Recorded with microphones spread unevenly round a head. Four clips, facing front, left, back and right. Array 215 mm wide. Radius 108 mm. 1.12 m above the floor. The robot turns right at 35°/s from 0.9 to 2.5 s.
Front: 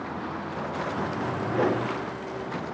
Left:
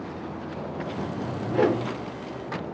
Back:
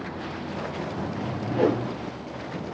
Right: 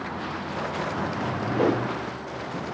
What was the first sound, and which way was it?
A whoosh, 75° left.